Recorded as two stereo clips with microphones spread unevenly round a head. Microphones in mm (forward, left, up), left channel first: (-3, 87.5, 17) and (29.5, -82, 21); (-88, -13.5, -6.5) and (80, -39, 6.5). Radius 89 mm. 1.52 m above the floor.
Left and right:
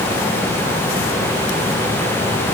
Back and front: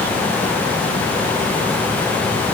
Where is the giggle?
I don't hear a giggle.